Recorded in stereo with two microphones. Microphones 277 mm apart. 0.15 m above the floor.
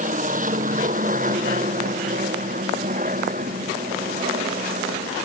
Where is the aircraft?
30° right (ahead or behind).